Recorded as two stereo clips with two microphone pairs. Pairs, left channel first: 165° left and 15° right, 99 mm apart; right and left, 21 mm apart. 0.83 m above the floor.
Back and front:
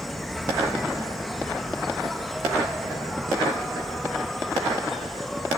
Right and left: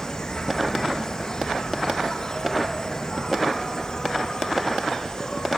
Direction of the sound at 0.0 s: 105° right.